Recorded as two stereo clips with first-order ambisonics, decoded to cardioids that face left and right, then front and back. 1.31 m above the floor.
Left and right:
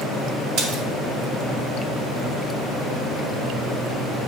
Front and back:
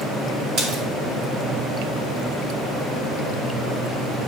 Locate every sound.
0.6 s a splash: 140° right, 1.6 m